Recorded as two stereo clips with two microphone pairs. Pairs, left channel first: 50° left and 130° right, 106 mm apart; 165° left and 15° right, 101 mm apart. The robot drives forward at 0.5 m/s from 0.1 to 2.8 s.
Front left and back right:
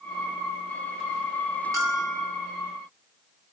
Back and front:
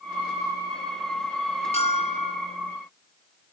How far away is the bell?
About 8.5 m.